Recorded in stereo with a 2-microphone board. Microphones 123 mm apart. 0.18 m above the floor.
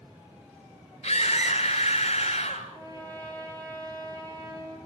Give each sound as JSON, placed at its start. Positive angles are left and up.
{"t": 1.0, "sound": "a scream", "side_deg": 55, "distance_m": 2.5}
{"t": 2.7, "sound": "a trumpet", "side_deg": -30, "distance_m": 4.5}